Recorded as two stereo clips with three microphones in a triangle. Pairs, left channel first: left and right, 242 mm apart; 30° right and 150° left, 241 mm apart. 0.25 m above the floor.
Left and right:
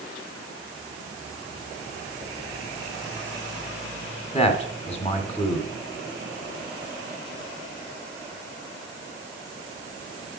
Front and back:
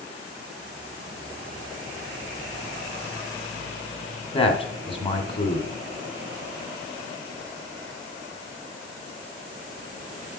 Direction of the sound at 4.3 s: 30° left.